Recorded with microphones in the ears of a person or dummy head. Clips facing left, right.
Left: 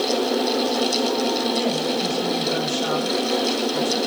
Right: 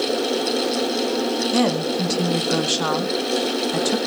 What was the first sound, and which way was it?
A woman speaking, 75° right (ahead or behind).